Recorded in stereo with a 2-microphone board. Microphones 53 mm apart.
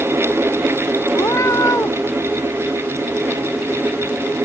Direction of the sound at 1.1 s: 70° left (ahead or behind).